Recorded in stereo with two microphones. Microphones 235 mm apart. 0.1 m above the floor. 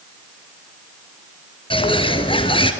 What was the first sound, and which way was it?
A bird, 20° left (ahead or behind).